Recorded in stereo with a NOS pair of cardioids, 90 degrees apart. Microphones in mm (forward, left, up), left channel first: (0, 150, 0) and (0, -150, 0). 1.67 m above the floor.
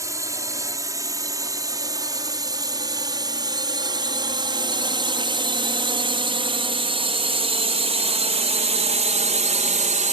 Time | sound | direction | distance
0.0 | a drone | 10° right | ?